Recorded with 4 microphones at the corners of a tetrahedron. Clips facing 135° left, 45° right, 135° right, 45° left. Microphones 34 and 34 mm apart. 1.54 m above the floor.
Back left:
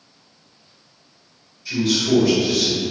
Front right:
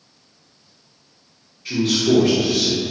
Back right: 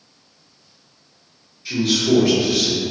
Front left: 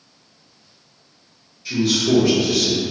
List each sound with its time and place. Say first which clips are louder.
1.6 s a man speaking: front right 1 dB, even; 50° right, 0.9 m